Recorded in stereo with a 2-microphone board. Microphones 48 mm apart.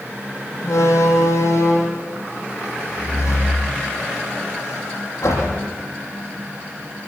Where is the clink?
No clink in this recording.